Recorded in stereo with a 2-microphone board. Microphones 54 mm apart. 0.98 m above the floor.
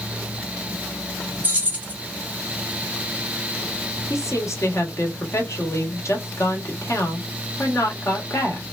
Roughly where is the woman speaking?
Left.